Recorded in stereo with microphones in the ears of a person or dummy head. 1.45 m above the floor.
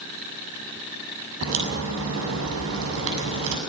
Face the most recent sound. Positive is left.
turn(degrees=-80)